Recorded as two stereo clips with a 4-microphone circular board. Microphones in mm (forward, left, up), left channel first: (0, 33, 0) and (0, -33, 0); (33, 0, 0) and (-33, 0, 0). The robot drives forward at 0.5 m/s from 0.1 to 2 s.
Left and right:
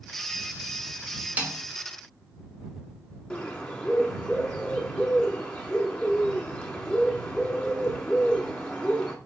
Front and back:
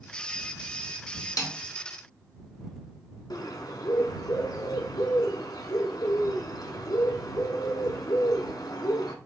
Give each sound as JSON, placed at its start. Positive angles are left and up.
{"t": 1.4, "sound": "a snare drum", "azimuth_deg": -20, "distance_m": 0.8}
{"t": 3.3, "sound": "a bird", "azimuth_deg": 10, "distance_m": 0.7}